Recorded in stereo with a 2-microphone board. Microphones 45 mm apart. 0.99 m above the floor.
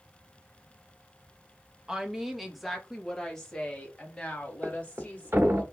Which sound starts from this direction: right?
A thud, at 4.6 s.